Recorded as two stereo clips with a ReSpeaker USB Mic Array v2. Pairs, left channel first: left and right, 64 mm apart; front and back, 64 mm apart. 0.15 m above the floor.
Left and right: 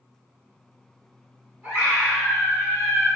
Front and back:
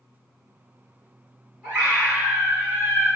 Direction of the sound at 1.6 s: 135° right.